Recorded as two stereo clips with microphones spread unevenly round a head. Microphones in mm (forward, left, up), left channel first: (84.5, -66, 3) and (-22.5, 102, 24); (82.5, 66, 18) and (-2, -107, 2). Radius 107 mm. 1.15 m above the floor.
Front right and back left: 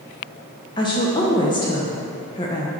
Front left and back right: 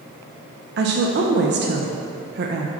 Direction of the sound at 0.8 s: 120° right.